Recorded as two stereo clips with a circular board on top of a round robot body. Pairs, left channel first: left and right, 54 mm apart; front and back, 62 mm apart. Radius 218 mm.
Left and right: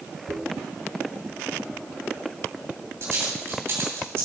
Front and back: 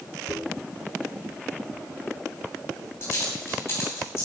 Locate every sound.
0.3 s a dropped coin: 50° right, 2.5 m